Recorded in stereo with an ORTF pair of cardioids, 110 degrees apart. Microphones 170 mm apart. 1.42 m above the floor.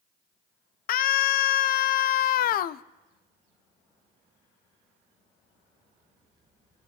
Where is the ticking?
I don't hear ticking.